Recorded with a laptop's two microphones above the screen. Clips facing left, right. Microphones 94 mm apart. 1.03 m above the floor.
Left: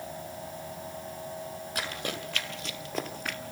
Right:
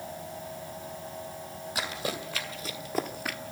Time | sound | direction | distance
1.8 | running footsteps | 5° right (ahead or behind) | 2 m